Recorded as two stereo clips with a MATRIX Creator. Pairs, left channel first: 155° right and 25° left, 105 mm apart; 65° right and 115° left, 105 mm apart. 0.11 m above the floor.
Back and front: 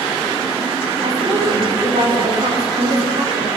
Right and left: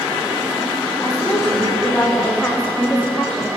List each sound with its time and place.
1.0 s a woman speaking: straight ahead, 7.5 m; by 3.5 s 10° left, 8.5 m